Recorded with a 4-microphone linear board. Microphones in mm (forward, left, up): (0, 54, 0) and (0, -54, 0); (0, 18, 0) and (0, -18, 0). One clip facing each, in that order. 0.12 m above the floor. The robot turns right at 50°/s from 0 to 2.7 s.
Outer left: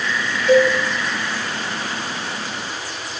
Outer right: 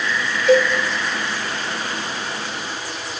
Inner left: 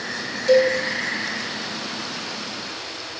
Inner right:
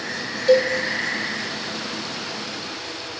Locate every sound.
0.5 s a cowbell: 10° right (ahead or behind), 1.6 m; by 0.7 s 20° right (ahead or behind), 1.6 m